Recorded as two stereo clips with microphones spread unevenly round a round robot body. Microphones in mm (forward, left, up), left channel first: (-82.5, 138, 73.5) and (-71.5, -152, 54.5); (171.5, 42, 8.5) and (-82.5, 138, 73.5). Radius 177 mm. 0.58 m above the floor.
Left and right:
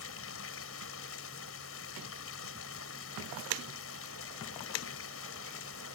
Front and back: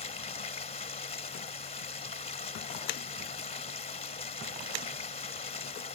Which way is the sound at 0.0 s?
45° left.